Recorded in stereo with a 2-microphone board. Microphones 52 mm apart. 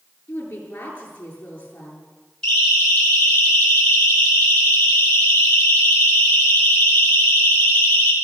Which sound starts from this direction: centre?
A siren, at 2.4 s.